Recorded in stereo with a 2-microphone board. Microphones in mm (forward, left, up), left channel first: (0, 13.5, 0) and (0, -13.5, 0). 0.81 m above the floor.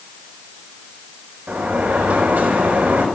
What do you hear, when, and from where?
1.5 s a sliding door: 75° right (ahead or behind), 4.5 m